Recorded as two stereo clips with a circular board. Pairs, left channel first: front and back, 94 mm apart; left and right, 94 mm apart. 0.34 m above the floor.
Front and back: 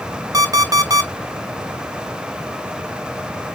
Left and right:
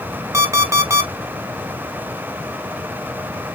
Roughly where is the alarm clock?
Behind right.